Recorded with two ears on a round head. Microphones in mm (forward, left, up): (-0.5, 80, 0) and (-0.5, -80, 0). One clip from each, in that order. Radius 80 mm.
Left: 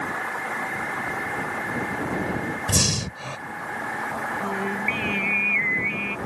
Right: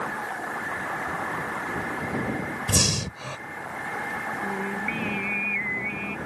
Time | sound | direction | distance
2.7 | breathing | 5° right (ahead or behind) | ?
4.4 | singing | 20° left (ahead or behind) | ?